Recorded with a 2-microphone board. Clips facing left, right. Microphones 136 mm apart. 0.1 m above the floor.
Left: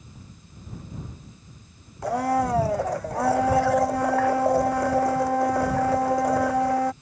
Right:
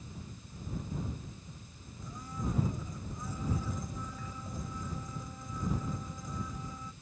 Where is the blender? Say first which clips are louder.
Left 18 dB; 75° left (ahead or behind).